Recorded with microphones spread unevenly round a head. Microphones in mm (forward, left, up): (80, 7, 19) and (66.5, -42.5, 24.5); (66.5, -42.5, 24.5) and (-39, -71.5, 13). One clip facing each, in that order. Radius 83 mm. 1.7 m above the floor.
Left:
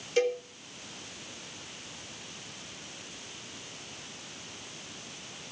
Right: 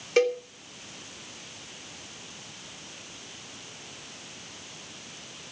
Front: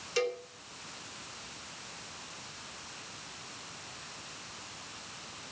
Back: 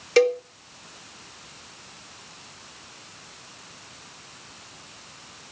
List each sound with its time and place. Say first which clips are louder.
0.2 s a cowbell: right 4 dB, back 13 dB; 150° right, 1.6 m